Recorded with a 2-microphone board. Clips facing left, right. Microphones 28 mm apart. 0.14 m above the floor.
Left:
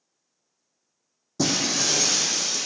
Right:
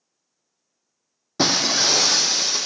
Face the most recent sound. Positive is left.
turn(degrees=-50)  # may be behind; listen again after turning